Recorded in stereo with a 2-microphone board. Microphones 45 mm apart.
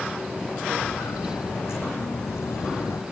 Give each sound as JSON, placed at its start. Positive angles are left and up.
{"t": 0.7, "sound": "footsteps", "side_deg": 65, "distance_m": 2.0}